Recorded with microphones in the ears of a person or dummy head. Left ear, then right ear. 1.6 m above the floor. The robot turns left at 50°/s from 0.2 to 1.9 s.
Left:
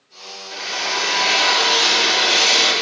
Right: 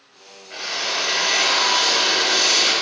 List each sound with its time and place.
0.5 s a drill: 155° right, 5 m; by 2.7 s 135° left, 5 m